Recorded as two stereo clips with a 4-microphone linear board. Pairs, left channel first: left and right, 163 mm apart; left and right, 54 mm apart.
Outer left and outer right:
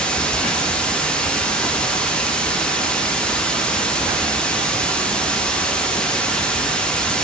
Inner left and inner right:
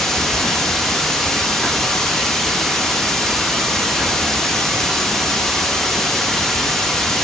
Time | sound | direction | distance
0.0 | running water | 5° left (ahead or behind) | 0.8 m